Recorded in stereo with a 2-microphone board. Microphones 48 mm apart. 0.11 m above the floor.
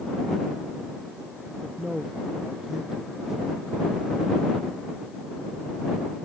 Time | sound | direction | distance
1.6 | a man speaking | centre (ahead or behind) | ?